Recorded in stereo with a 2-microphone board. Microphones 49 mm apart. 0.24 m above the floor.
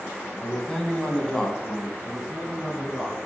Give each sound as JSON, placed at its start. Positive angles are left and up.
{"t": 0.4, "sound": "a man speaking", "side_deg": 10, "distance_m": 1.3}
{"t": 2.0, "sound": "a man speaking", "side_deg": 0, "distance_m": 2.5}